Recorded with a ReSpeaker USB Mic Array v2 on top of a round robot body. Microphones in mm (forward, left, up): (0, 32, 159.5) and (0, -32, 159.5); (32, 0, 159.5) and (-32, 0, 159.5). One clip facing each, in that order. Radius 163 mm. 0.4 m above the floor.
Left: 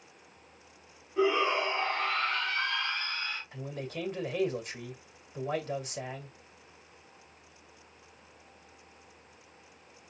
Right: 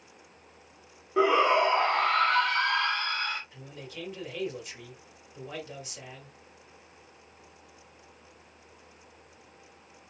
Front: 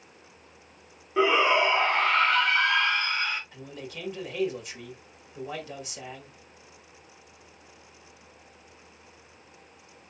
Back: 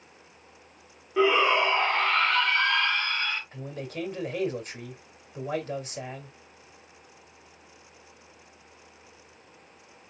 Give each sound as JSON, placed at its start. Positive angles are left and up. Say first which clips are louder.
{"t": 1.2, "sound": "a shout", "louder": "right 5 dB, even", "azimuth_deg": -85, "distance_m": 2.5}
{"t": 3.5, "sound": "a man speaking", "louder": "left 5 dB, back 4 dB", "azimuth_deg": 135, "distance_m": 2.5}